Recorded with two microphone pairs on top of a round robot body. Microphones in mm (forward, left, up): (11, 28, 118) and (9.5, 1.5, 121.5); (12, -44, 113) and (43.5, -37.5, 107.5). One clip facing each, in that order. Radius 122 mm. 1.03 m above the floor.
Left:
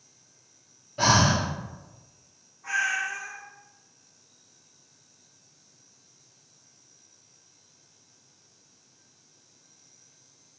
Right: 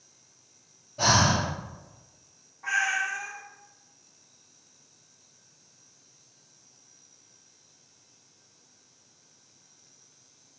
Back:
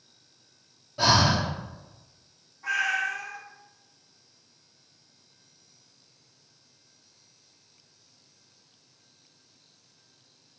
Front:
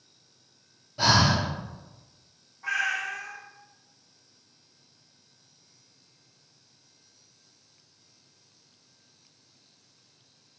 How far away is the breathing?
About 0.6 m.